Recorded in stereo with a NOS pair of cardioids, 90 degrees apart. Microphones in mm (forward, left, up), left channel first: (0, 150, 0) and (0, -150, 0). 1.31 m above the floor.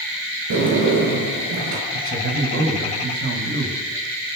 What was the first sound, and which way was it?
A sliding door, 65° right.